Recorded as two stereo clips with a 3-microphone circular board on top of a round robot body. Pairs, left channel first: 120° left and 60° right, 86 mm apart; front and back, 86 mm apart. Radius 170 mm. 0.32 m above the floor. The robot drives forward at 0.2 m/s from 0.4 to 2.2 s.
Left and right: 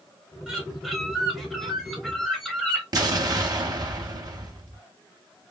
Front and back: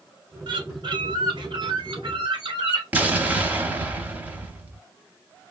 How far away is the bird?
About 1.0 m.